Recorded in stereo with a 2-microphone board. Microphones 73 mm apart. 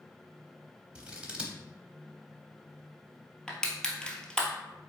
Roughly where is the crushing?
Centre.